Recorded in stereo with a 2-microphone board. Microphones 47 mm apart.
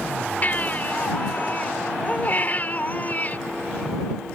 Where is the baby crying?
35° left (ahead or behind).